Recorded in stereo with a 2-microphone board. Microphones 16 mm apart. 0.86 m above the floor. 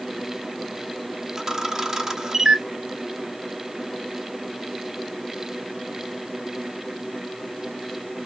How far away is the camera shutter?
About 0.8 m.